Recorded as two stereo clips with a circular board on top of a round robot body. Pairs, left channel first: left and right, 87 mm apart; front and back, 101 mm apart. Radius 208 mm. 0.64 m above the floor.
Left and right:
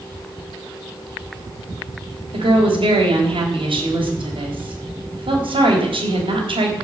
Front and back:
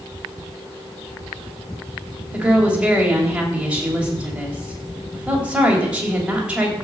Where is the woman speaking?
100° right, 3.5 m.